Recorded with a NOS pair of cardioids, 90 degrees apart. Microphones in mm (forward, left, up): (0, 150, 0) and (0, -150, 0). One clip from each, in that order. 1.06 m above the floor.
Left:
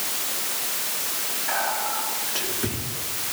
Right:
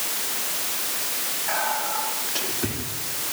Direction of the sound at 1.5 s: 5° right.